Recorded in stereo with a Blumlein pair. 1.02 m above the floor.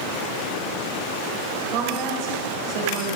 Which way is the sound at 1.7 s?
40° right.